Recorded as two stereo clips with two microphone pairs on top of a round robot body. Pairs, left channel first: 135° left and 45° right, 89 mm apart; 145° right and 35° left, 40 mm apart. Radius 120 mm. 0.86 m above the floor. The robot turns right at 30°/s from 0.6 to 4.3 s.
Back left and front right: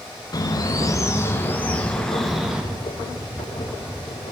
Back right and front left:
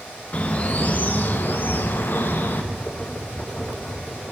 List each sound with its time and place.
0.3 s a bird: 170° left, 1.2 m; by 2.6 s 130° right, 1.2 m